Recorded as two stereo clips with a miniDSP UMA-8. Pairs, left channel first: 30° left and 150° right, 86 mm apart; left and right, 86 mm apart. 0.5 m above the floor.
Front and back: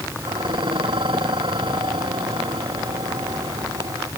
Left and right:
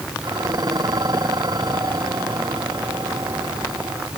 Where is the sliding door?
No sliding door in this recording.